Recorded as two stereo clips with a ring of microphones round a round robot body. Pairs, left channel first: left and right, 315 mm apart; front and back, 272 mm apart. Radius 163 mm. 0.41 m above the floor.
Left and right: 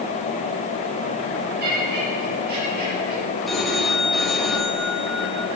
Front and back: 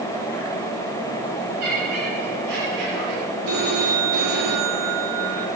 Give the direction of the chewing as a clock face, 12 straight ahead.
No chewing in this recording.